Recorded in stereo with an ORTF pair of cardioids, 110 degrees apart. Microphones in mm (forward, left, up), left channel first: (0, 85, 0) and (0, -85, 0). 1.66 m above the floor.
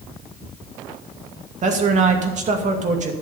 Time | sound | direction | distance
1.6 | a man speaking | 45° right | 2.5 m